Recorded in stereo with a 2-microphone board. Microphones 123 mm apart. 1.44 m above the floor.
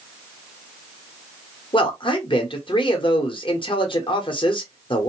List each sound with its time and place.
1.7 s a man speaking: 40° left (ahead or behind), 0.9 m